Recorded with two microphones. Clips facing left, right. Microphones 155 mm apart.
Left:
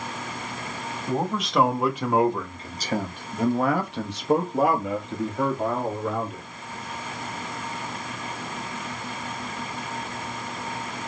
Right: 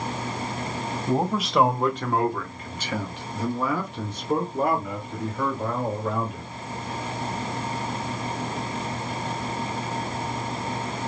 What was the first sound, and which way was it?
A man speaking, 10° right (ahead or behind).